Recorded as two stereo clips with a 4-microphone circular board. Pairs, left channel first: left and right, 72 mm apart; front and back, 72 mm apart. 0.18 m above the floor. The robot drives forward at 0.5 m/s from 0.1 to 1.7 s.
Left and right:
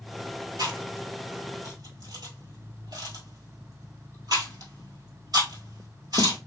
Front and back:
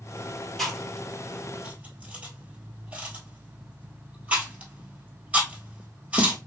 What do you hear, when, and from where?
0.6 s chewing: 85° right, 1.3 m; by 6.4 s 110° right, 1.4 m